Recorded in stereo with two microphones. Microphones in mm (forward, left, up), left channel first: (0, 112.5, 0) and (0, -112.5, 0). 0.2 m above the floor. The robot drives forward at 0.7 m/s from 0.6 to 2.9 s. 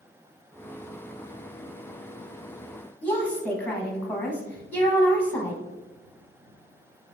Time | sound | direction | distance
3.0 | a woman speaking | 5° left (ahead or behind) | 1.0 m